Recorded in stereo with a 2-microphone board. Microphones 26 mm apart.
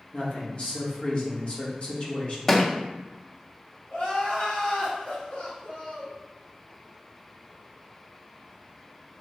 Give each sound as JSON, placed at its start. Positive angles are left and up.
{"t": 0.1, "sound": "a man speaking", "side_deg": 50, "distance_m": 1.6}
{"t": 2.5, "sound": "a thud", "side_deg": 15, "distance_m": 0.5}
{"t": 3.9, "sound": "crying", "side_deg": 75, "distance_m": 2.0}